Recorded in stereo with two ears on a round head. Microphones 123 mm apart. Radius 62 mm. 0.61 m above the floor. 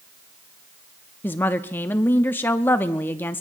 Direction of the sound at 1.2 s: 15° left (ahead or behind).